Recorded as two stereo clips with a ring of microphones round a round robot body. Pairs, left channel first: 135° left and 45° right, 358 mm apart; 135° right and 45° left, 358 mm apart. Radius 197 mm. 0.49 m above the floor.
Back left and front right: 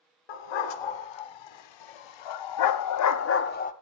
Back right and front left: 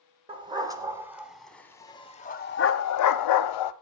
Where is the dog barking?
120° left, 1.9 m; by 3.7 s 155° right, 1.0 m.